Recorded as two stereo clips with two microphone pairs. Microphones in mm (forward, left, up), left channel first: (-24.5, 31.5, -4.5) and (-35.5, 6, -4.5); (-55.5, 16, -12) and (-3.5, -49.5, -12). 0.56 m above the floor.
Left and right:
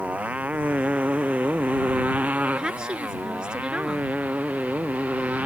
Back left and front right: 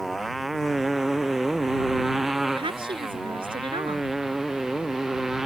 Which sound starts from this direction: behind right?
A motorcycle, at 0.0 s.